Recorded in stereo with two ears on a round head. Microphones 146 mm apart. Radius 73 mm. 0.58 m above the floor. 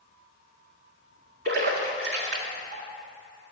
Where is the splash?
70° right (ahead or behind), 1.4 m.